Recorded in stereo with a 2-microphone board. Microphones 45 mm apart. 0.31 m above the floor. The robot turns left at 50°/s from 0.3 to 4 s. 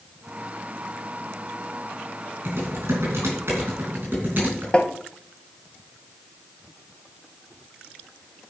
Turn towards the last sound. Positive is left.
turn(degrees=25)  # may be behind; listen again after turning